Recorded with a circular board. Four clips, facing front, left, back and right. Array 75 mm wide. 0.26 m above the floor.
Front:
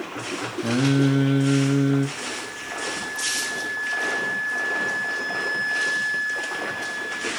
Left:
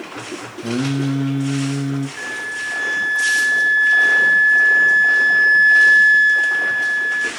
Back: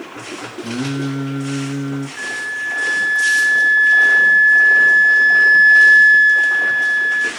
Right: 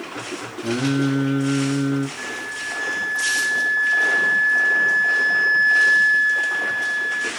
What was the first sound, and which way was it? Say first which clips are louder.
Singing: even, front 3 dB; 15° left.